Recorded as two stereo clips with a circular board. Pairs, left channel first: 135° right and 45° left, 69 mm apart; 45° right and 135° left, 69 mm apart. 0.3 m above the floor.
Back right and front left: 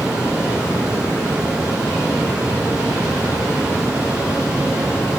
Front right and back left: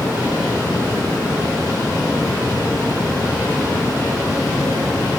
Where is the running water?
30° right, 3.5 m.